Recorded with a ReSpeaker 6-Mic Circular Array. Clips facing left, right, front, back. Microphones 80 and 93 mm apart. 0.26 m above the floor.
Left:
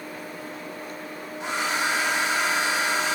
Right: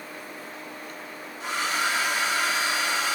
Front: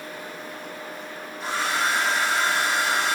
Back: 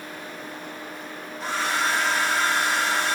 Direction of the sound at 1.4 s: 80° left.